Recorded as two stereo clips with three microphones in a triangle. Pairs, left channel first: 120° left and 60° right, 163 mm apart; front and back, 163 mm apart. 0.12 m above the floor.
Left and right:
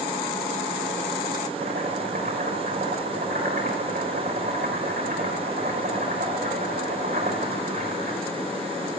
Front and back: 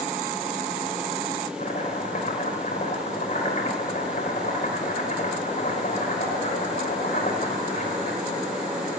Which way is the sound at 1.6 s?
30° right.